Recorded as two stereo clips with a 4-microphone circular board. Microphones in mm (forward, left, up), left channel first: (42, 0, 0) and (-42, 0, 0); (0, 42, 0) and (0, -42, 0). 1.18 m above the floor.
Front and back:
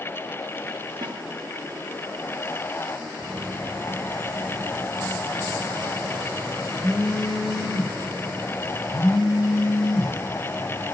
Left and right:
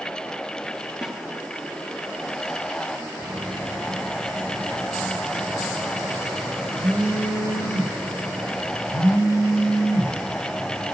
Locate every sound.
1.0 s a snare drum: 170° right, 1.8 m
3.2 s a phone buzzing: 85° right, 3 m